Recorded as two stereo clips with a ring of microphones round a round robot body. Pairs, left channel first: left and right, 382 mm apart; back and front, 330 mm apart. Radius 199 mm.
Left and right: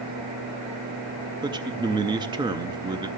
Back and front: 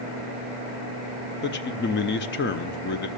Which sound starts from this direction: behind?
A man speaking, at 1.4 s.